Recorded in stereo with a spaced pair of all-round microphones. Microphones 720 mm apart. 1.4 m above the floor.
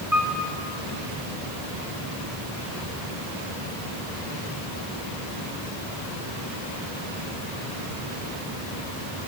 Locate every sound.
0.1 s a piano: 25° right (ahead or behind), 5.5 m